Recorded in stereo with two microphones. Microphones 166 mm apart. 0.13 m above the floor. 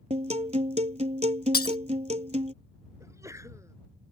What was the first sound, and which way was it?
A guitar, 45° right (ahead or behind).